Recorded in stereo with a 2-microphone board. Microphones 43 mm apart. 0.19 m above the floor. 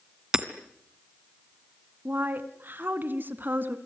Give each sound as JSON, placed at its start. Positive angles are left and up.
{"t": 0.3, "sound": "hammering", "side_deg": -15, "distance_m": 1.8}
{"t": 2.0, "sound": "a woman speaking", "side_deg": -45, "distance_m": 2.0}